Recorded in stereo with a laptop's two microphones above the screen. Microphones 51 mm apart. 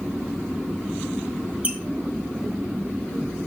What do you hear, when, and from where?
1.6 s a squeak: 30° right (ahead or behind), 0.9 m